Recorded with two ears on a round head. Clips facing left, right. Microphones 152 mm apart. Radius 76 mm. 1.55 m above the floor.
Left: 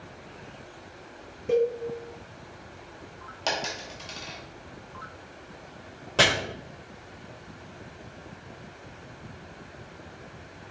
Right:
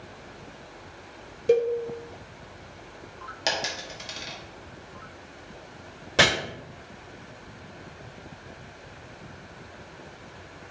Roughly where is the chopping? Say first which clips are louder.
Right 1 dB; centre.